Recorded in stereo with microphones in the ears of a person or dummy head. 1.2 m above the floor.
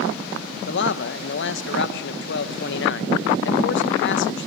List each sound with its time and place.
0.7 s a man speaking: 60° left (ahead or behind), 1.3 m